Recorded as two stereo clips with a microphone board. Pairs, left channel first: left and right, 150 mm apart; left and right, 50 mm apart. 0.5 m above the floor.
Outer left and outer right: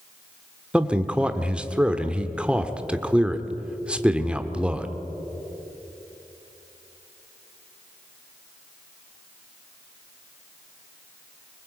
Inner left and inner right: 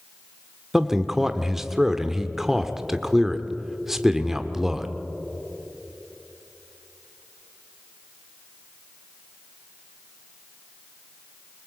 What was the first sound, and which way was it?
A man speaking, 5° right (ahead or behind).